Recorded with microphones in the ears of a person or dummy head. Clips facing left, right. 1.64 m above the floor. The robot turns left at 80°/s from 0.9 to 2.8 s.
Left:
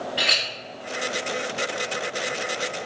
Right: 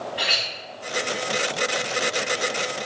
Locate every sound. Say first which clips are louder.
0.2 s a clink: left 1 dB; 55° left (ahead or behind), 1.2 m